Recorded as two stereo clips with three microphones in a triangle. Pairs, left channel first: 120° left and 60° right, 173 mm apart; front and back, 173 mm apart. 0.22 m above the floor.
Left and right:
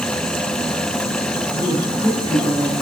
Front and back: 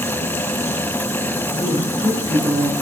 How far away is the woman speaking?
About 4 m.